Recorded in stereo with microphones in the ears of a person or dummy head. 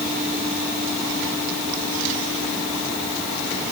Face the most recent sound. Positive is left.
No sound to turn to.